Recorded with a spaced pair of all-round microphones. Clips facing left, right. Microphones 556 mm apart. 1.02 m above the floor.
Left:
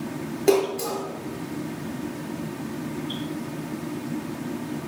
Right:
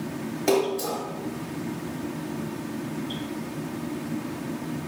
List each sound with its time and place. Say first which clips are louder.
0.5 s a splash: left 3 dB; 30° right (ahead or behind), 4 m